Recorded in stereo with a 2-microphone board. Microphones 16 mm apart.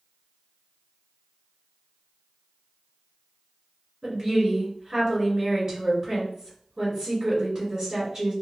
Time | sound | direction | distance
4.0 | a woman speaking | 35° right (ahead or behind) | 1.6 m